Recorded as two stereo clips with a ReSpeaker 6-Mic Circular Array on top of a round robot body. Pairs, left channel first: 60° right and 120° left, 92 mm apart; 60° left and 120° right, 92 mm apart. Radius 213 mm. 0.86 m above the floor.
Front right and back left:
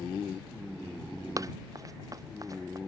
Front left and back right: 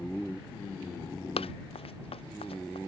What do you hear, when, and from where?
1.4 s running footsteps: 65° left